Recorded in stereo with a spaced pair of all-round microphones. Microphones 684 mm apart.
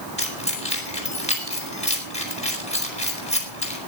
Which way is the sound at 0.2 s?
10° left (ahead or behind).